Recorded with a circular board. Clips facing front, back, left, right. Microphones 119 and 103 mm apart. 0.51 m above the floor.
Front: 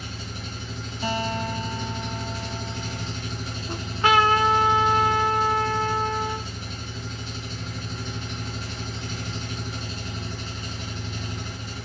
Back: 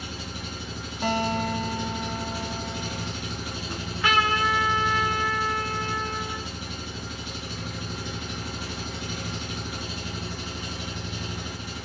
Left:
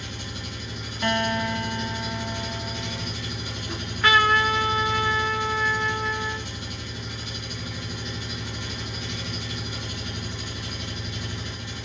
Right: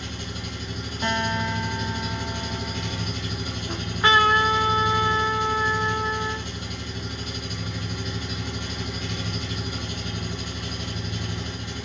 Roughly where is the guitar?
Behind.